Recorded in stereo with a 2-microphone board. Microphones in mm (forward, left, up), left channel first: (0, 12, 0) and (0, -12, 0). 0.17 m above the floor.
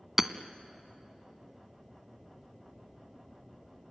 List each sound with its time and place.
0.2 s hammering: 10° right (ahead or behind), 0.8 m